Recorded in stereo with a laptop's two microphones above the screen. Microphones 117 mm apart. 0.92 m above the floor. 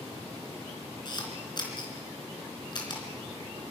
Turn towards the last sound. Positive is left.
turn(degrees=40)  # may be behind; listen again after turning